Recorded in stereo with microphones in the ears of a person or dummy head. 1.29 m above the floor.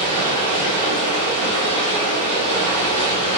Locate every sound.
0.0 s running water: 30° right (ahead or behind), 1.8 m